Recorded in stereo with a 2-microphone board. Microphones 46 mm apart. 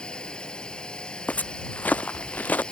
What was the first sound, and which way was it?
A drone, 20° left (ahead or behind).